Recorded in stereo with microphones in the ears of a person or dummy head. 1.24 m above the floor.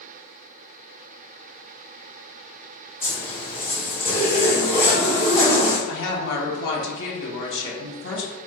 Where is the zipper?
30° left (ahead or behind), 1.6 m.